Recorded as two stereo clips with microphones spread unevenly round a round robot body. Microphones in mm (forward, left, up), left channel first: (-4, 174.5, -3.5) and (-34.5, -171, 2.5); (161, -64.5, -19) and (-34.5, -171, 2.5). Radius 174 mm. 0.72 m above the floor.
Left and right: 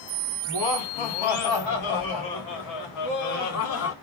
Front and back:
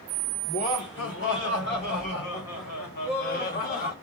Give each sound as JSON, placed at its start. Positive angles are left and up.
{"t": 0.5, "sound": "laughter", "azimuth_deg": 80, "distance_m": 2.5}